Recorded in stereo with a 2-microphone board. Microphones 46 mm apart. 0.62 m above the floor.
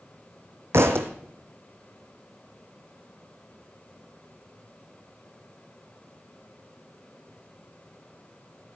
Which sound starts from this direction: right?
A thud, at 0.7 s.